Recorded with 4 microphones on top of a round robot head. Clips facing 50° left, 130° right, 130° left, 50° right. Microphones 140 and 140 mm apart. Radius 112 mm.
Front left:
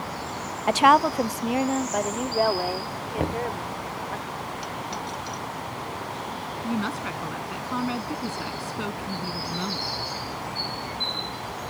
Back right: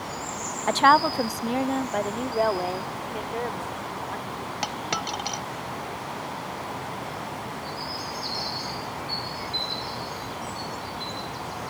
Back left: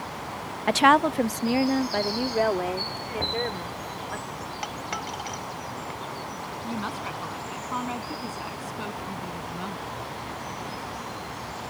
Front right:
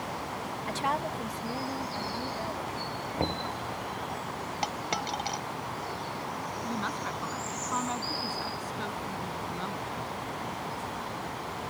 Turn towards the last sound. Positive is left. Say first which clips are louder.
# front left 5 dB, back left 3 dB
turn(degrees=50)